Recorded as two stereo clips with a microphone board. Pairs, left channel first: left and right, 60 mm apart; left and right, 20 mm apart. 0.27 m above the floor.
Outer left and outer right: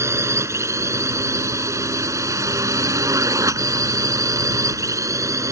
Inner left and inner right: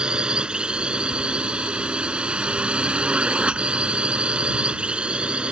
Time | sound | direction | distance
0.0 | a drone | 50° right (ahead or behind) | ?